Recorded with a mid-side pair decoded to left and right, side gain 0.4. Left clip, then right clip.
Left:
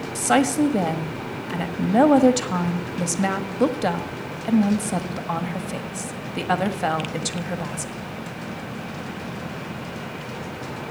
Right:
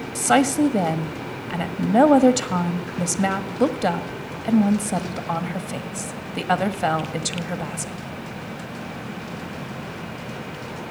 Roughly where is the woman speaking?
Ahead.